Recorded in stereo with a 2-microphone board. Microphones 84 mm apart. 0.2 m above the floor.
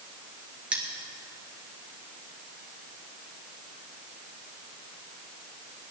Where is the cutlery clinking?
15° right (ahead or behind), 2 m.